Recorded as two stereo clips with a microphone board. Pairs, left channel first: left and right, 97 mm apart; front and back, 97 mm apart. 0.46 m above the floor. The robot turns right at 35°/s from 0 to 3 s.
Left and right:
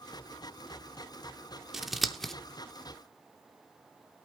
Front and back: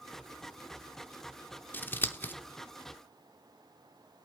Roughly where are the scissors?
Ahead.